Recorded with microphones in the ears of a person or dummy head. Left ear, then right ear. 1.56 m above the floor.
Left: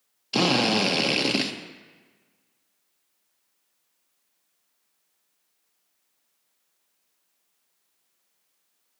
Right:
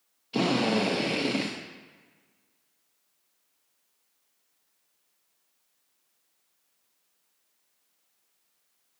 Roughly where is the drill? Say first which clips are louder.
Left 4 dB; left.